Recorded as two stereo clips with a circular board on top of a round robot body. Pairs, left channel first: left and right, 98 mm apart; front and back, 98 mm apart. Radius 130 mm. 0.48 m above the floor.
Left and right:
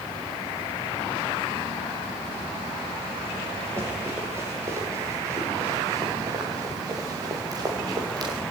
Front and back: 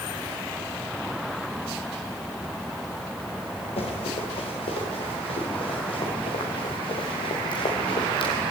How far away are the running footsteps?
About 7 m.